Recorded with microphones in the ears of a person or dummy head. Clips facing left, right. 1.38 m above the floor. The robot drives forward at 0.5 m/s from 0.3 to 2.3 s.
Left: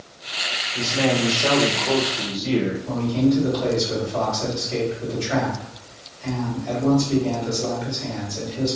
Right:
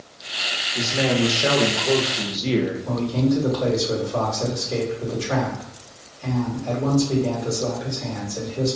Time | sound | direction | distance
0.8 | a man speaking | 15° right (ahead or behind) | 1.6 m
2.9 | a man speaking | 65° right (ahead or behind) | 1.9 m